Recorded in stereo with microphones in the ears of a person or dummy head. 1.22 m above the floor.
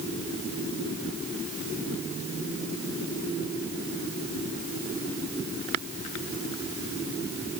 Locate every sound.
Only background noise.